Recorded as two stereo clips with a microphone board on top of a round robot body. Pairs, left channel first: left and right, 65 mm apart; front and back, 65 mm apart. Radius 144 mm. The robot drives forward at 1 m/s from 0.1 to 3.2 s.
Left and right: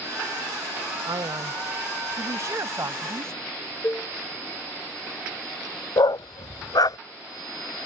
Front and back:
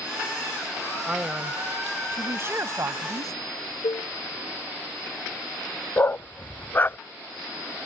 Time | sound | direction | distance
1.1 | a man speaking | 100° right | ?
3.8 | dishes clattering | 30° left | ?
6.0 | a dog barking | 65° left | ?